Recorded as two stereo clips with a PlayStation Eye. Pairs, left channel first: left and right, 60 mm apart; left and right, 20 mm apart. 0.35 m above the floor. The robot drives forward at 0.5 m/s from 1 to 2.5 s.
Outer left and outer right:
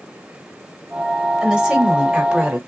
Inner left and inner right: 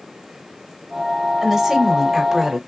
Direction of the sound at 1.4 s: 15° right (ahead or behind).